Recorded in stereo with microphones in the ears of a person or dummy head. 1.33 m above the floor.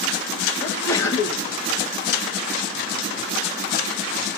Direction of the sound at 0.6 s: 15° left (ahead or behind).